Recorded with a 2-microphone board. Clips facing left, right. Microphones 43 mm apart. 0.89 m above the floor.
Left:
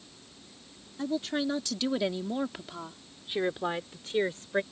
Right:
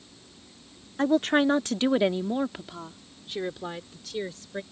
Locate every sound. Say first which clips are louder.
1.0 s a woman speaking: right 9 dB; 65° right (ahead or behind); by 4.6 s 35° left (ahead or behind)